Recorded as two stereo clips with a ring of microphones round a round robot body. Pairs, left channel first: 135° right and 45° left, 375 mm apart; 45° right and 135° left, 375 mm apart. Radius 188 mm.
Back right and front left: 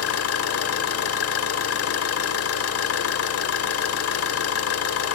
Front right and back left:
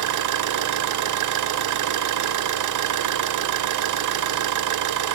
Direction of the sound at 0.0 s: 175° left.